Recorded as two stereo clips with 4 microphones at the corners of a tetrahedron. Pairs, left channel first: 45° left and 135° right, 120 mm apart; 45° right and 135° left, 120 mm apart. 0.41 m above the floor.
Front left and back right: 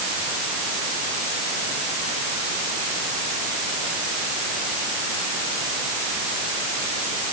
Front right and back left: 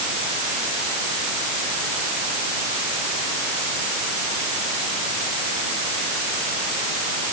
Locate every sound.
Only background noise.